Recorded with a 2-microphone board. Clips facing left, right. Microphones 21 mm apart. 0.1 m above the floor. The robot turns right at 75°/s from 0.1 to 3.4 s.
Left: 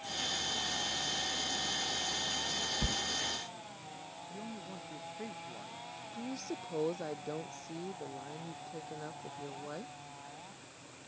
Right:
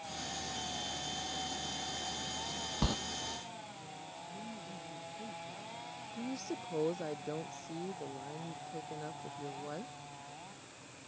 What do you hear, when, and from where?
2.8 s a sliding door: 50° right (ahead or behind); by 3.0 s 40° right (ahead or behind)
4.3 s a man speaking: 80° left
6.1 s a woman speaking: 10° left (ahead or behind)